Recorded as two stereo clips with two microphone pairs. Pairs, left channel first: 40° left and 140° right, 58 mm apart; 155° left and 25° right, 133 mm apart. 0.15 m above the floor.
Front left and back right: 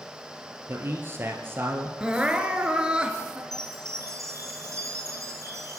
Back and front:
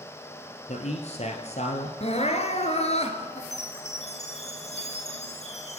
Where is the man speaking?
175° left, 2.5 m.